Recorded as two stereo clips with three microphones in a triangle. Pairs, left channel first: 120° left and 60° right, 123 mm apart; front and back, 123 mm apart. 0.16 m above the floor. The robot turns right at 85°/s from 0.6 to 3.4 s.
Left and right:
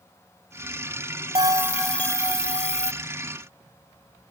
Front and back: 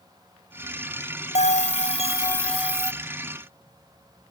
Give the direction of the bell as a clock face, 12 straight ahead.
12 o'clock.